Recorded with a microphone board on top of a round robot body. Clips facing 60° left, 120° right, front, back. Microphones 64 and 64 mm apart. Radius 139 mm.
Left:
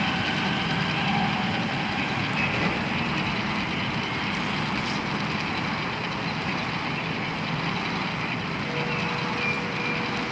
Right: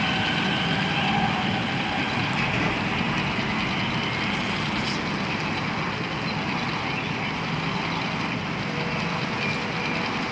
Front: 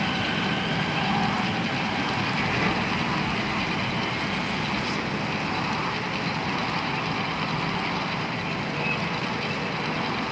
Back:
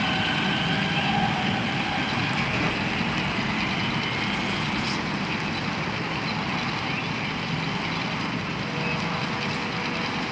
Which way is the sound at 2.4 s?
45° right.